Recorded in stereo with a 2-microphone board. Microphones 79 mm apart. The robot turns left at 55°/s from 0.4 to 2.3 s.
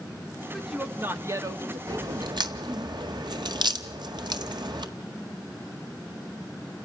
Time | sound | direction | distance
0.5 | a woman speaking | straight ahead | 1.7 m
1.9 | a crack | 45° right (ahead or behind) | 1.7 m